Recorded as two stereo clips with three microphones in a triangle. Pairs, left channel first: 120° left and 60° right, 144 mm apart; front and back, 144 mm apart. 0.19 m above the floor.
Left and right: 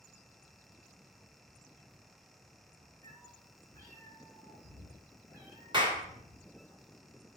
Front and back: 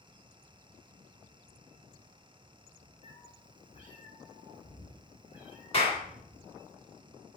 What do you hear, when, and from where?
3.0 s a cat meowing: 35° right, 1.5 m; by 6.7 s 60° right, 3 m
5.7 s a clap: 15° right, 1.8 m